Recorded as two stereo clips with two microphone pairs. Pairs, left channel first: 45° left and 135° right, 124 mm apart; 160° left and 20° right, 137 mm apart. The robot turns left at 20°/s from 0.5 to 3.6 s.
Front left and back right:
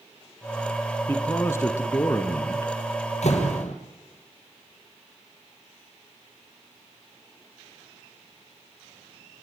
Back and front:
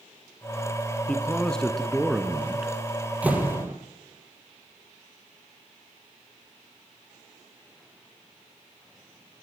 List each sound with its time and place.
1.1 s a man speaking: 95° left, 1.4 m; by 2.7 s 60° left, 1.4 m
3.2 s a door slam: 60° left, 3 m; by 3.7 s 55° left, 3 m